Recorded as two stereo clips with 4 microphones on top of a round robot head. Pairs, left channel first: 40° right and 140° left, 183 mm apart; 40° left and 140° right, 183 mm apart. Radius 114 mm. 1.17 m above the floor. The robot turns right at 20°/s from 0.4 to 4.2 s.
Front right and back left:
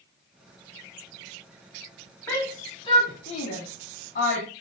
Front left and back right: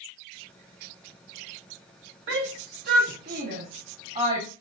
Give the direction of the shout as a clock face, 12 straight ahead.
4 o'clock.